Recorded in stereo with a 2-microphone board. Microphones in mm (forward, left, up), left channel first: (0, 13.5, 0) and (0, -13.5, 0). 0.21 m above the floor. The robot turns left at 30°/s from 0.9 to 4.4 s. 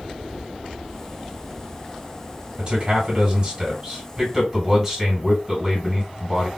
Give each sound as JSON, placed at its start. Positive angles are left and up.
{"t": 2.6, "sound": "a man speaking", "azimuth_deg": -110, "distance_m": 2.0}